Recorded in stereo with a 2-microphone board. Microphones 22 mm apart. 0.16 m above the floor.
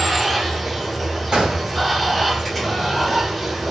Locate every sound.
0.0 s running water: 5° right (ahead or behind), 0.9 m
1.3 s a gunshot: 35° right (ahead or behind), 1.3 m